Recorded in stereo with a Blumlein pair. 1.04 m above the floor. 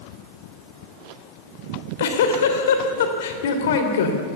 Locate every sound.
1.7 s a giggle: 60° left, 3 m